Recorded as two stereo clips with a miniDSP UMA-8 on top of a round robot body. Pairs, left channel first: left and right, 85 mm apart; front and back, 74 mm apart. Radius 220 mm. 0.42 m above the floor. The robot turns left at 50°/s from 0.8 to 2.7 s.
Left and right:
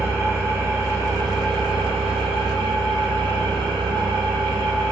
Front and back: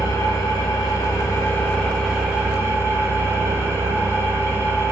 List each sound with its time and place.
0.0 s an engine running: 25° right, 0.8 m; by 4.9 s 120° right, 0.8 m